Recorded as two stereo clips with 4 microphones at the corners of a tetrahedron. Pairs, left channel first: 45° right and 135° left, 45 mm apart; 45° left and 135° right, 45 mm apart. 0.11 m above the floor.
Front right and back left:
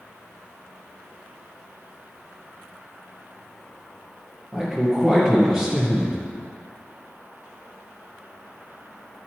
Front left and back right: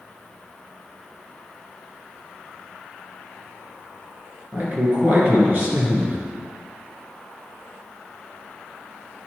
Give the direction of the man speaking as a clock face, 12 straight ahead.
5 o'clock.